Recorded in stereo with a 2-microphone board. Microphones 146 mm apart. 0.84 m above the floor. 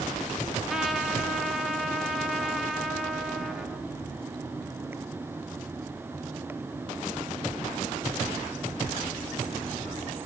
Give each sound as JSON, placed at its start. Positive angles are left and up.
{"t": 0.7, "sound": "a trumpet", "side_deg": -5, "distance_m": 1.4}